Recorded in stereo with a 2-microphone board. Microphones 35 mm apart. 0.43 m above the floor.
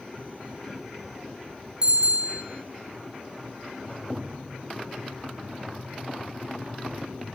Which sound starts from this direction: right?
A bicycle bell, at 1.8 s.